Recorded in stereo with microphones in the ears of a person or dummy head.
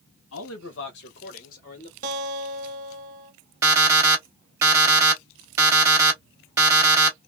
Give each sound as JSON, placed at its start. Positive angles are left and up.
{"t": 0.3, "sound": "a man speaking", "side_deg": 70, "distance_m": 0.8}
{"t": 2.0, "sound": "a guitar", "side_deg": -45, "distance_m": 1.2}
{"t": 3.6, "sound": "an alarm clock", "side_deg": -15, "distance_m": 1.2}